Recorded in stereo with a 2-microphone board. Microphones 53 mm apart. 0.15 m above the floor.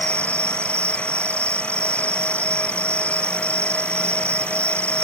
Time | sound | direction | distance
0.0 | an insect | 55° right (ahead or behind) | ?